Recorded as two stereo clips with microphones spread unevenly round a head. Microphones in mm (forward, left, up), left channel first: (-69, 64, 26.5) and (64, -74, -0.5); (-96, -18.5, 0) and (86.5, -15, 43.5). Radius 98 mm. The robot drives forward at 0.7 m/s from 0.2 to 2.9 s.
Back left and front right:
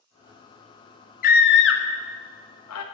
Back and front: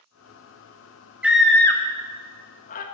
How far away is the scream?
About 1.1 m.